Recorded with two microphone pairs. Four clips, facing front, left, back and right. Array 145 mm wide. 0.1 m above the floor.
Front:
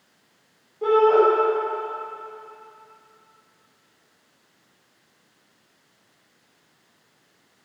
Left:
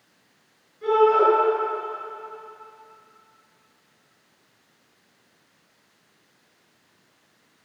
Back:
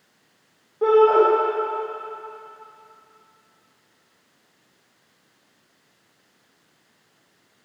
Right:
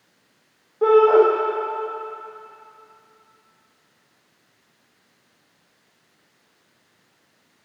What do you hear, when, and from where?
0.8 s a shout: 115° right, 8.5 m